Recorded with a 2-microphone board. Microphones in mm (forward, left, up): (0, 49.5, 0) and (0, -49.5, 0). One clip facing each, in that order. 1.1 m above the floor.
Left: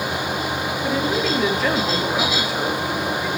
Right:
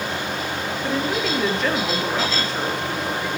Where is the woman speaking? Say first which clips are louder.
Left 2 dB; 5° left (ahead or behind), 2 m.